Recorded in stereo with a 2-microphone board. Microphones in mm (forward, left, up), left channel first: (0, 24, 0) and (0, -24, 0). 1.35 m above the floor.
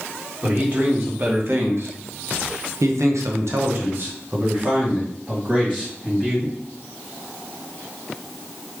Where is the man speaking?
35° right (ahead or behind), 1.6 m; by 6.6 s 20° right (ahead or behind), 2.0 m.